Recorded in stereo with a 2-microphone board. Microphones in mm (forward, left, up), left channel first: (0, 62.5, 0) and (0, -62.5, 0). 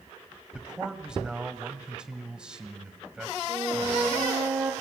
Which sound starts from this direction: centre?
A man speaking, at 0.5 s.